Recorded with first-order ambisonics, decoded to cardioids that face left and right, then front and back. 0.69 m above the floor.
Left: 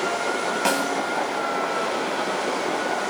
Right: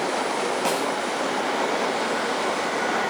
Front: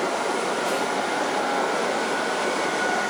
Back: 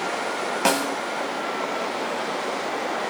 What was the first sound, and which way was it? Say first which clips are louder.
A snare drum: left 4 dB, back 2 dB; 160° left.